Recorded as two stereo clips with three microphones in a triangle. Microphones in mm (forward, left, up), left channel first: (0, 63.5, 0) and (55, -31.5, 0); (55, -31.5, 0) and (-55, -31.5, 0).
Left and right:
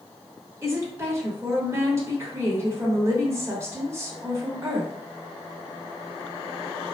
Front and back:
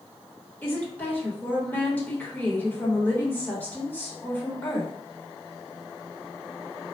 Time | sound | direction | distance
0.6 | a woman speaking | 50° right | 1.1 m